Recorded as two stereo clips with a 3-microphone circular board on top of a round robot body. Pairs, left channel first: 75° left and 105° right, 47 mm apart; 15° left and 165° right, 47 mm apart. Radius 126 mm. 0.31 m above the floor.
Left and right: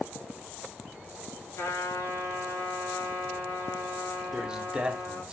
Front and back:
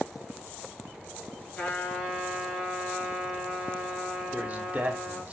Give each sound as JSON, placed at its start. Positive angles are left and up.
{"t": 1.6, "sound": "a trumpet", "azimuth_deg": 80, "distance_m": 2.5}
{"t": 4.3, "sound": "a man speaking", "azimuth_deg": -150, "distance_m": 1.1}